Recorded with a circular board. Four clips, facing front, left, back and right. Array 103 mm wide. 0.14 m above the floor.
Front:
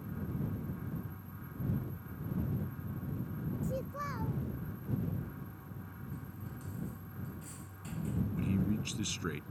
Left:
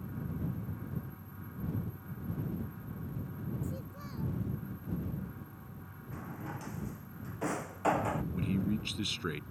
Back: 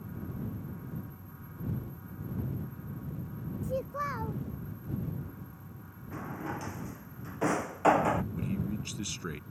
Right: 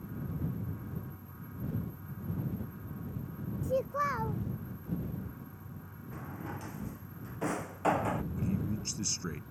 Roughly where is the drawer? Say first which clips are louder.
Right 1 dB, back 14 dB; behind.